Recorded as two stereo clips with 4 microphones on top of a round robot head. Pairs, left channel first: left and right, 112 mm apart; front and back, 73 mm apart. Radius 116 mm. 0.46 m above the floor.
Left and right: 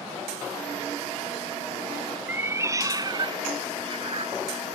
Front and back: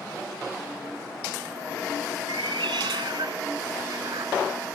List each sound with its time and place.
2.3 s a cat meowing: 165° right; by 4.4 s 130° right